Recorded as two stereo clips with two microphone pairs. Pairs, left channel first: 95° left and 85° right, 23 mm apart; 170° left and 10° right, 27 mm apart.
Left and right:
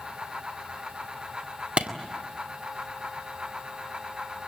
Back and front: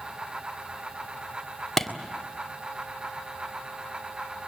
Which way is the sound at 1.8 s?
105° right.